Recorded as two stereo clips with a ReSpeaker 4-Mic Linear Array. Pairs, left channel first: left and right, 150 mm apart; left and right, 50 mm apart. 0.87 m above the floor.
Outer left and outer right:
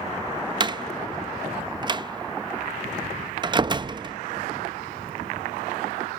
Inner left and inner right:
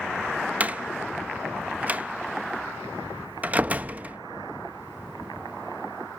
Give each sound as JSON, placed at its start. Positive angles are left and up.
{"t": 0.6, "sound": "a door slam", "side_deg": -30, "distance_m": 0.6}